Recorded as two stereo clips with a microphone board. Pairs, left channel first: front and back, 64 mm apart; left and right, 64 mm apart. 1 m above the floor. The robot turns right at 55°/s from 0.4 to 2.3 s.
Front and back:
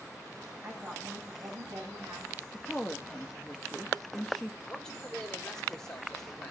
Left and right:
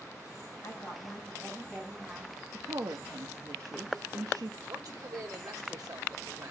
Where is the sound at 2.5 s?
90° right, 1.3 m.